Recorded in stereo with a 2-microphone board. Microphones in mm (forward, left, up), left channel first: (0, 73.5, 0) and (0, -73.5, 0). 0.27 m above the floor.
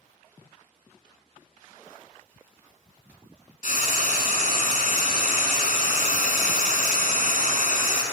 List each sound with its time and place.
3.6 s frying: 60° left (ahead or behind), 1.1 m